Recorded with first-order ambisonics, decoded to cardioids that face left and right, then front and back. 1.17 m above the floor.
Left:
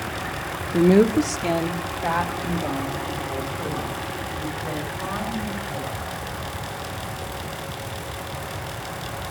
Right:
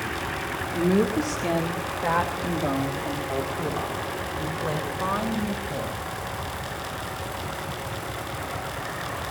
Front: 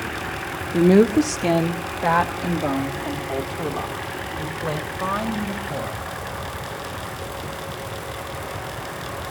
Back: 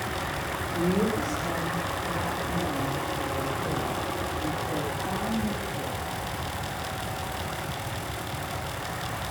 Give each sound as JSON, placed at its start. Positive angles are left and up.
{"t": 0.7, "sound": "a woman speaking", "azimuth_deg": 40, "distance_m": 1.0}